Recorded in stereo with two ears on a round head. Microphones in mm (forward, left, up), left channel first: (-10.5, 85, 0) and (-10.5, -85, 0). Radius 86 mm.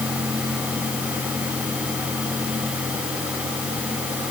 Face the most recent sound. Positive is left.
No sound to turn to.